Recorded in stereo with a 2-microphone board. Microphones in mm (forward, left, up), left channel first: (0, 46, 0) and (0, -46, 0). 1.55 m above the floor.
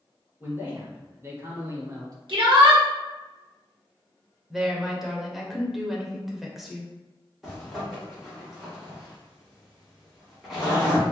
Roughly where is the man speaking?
Right.